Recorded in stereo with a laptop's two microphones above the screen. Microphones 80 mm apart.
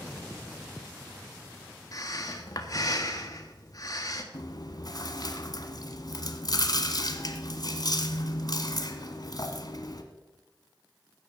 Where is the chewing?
55° left (ahead or behind), 1.2 m.